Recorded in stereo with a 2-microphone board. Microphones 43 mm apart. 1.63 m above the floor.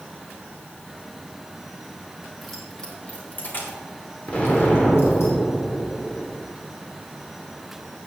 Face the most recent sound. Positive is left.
turn(degrees=35)  # may be behind; listen again after turning